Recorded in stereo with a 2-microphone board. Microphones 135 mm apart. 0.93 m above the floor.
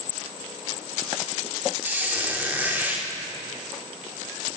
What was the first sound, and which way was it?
A squeak, 15° right (ahead or behind).